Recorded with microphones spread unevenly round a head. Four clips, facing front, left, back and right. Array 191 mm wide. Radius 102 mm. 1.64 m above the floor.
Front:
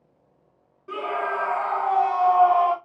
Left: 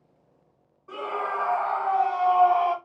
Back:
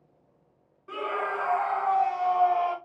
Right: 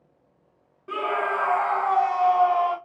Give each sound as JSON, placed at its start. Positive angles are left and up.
{"t": 0.9, "sound": "a scream", "azimuth_deg": -85, "distance_m": 1.0}